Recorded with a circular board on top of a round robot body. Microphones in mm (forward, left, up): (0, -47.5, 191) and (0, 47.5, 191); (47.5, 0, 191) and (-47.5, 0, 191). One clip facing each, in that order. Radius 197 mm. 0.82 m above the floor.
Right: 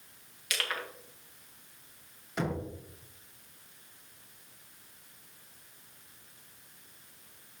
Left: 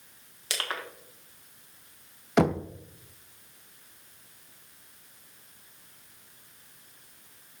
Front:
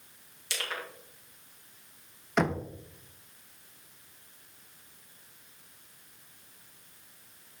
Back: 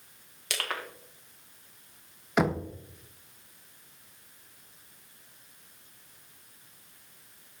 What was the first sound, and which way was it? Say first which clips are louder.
Crushing: left 1 dB, back 2 dB; 150° left.